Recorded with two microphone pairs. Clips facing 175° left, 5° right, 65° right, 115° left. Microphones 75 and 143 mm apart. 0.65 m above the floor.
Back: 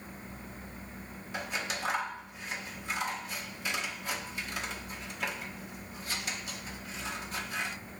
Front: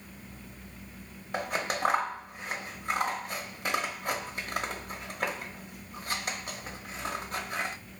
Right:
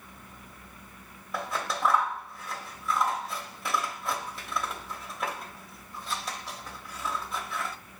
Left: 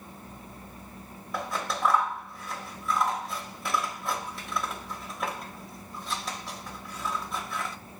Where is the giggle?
No giggle in this recording.